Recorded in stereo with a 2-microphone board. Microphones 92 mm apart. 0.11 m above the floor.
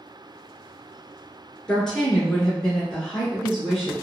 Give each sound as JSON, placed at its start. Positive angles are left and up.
{"t": 1.7, "sound": "a woman speaking", "side_deg": 5, "distance_m": 1.5}